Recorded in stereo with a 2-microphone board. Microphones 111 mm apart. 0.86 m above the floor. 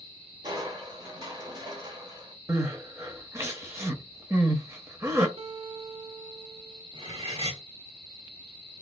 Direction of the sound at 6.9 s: 55° right (ahead or behind).